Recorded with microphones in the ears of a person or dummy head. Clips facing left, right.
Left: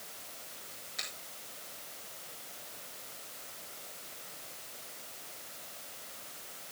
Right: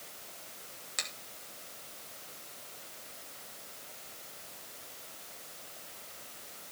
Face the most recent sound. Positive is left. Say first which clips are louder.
# right 3 dB
turn(degrees=-65)  # may be behind; listen again after turning